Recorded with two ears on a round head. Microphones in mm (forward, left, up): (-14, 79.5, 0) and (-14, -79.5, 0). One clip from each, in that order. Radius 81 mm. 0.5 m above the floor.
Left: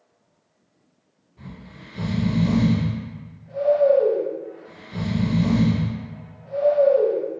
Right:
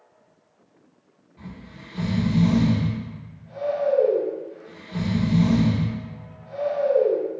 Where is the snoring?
35° right (ahead or behind), 1.5 m.